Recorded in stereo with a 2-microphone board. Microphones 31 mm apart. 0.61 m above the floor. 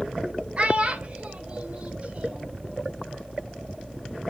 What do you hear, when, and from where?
0.6 s a child speaking: 40° right (ahead or behind), 2 m; by 2.5 s 35° right (ahead or behind), 3.5 m